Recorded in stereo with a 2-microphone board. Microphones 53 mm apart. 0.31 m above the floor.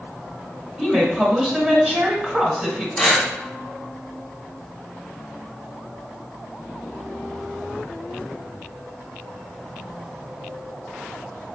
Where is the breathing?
10° left (ahead or behind), 1.0 m.